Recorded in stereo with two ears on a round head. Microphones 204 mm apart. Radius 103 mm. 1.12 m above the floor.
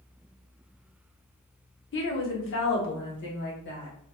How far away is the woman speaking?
About 0.9 m.